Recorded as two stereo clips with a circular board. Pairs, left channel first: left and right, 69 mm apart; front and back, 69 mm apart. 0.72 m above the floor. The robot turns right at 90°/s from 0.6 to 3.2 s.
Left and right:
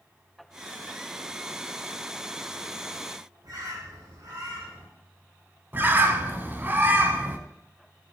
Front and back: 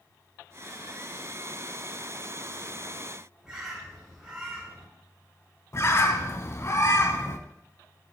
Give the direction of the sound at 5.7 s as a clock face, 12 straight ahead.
1 o'clock.